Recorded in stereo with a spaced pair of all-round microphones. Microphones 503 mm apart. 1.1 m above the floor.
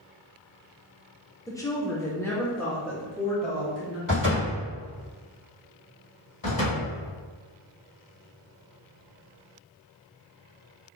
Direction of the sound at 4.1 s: 40° left (ahead or behind).